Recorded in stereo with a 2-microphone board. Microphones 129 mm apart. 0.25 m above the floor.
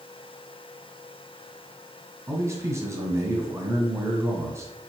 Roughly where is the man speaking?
Right.